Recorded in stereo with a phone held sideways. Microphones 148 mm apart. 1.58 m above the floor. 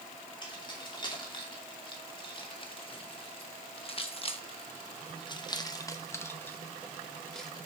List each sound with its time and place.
0.4 s keys jangling: 30° left (ahead or behind), 2.5 m; by 7.5 s centre (ahead or behind), 1.4 m